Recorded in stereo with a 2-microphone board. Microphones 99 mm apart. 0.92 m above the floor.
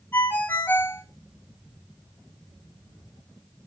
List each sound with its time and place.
0.1 s a ringtone: 20° left (ahead or behind), 4.5 m